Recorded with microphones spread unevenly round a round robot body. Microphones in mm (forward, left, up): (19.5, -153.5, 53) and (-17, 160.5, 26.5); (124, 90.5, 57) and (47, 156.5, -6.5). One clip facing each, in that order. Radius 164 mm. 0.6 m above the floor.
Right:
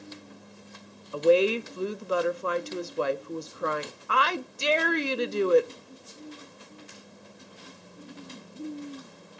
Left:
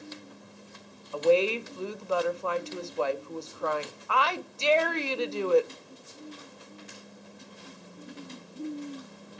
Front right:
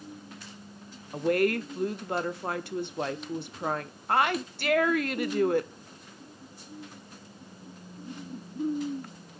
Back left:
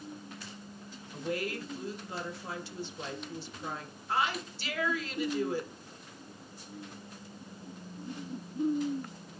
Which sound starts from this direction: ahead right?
A woman speaking, at 1.1 s.